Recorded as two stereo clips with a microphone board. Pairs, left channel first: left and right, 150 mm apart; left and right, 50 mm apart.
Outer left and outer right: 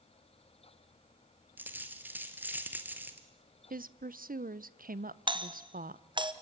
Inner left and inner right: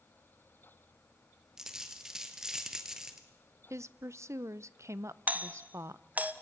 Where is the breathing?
I don't hear breathing.